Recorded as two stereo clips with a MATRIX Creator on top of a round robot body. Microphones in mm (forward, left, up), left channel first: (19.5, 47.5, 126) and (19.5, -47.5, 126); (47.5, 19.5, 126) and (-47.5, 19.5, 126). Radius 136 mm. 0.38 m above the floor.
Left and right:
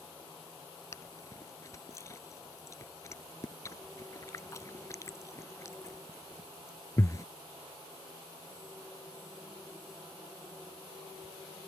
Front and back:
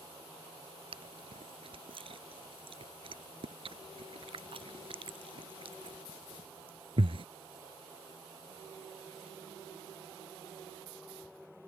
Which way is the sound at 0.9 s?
150° left.